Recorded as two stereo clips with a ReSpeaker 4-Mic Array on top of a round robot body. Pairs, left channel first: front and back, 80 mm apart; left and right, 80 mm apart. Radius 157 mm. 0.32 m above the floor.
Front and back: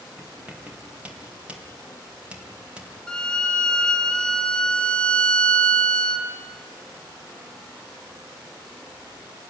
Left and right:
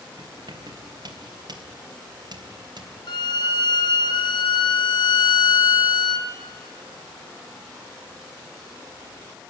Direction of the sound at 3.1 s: 80° left.